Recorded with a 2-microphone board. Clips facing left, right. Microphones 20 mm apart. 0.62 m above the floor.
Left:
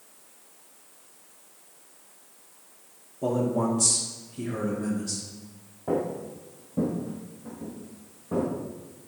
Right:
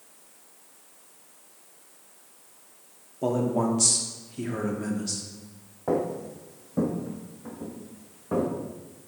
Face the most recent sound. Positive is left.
turn(degrees=-75)  # may be behind; listen again after turning